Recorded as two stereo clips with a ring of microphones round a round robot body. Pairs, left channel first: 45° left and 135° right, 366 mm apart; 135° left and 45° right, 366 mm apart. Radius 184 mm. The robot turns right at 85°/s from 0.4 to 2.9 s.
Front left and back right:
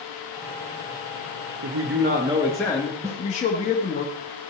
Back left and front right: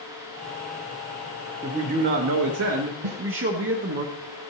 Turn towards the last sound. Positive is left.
turn(degrees=-60)